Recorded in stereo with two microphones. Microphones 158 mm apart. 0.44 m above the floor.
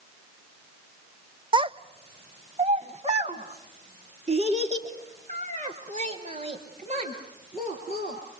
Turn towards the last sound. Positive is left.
turn(degrees=-45)  # may be behind; listen again after turning